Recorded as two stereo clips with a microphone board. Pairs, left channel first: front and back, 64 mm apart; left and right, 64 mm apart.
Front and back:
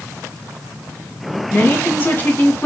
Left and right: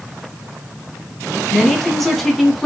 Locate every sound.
1.5 s a woman speaking: 10° left, 1.1 m